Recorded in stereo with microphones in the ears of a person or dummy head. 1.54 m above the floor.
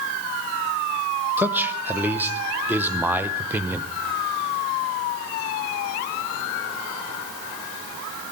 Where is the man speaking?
15° right (ahead or behind), 0.8 m.